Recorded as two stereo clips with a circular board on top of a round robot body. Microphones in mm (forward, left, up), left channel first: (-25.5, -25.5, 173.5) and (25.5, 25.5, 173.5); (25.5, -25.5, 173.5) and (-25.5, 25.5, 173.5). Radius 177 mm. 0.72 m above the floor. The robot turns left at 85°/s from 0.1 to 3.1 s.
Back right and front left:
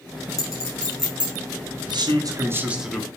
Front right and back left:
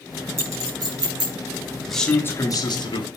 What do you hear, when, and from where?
0.4 s a clink: 170° right, 5 m; by 1.3 s 110° left, 5 m
1.9 s a man speaking: 45° left, 1.8 m; by 3.1 s 55° right, 1.8 m